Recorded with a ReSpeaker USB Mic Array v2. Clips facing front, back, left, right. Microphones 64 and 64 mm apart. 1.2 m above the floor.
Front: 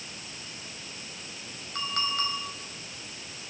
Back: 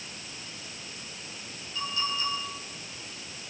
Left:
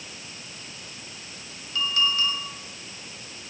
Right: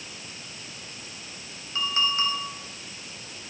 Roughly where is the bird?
No bird in this recording.